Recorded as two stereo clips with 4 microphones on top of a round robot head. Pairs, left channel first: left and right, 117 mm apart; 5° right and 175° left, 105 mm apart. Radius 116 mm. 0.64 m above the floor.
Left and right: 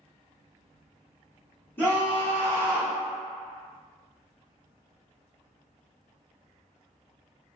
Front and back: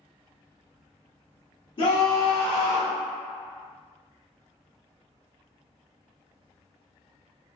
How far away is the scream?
About 1.2 m.